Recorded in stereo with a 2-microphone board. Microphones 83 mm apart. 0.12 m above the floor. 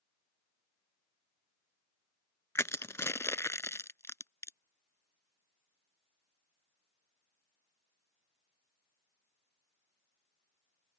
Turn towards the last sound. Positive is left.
turn(degrees=35)  # may be behind; listen again after turning